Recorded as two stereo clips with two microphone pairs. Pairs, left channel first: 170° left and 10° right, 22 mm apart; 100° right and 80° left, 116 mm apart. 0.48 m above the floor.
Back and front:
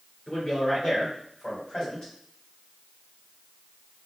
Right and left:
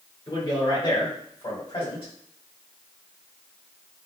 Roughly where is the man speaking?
Behind right.